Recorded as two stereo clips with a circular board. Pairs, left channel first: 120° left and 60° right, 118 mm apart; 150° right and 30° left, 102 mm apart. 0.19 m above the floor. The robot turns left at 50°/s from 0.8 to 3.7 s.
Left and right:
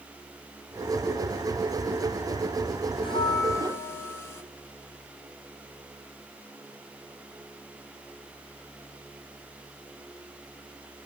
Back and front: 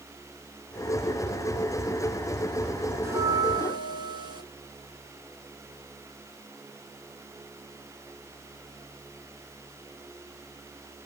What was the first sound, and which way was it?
A bell, 90° left.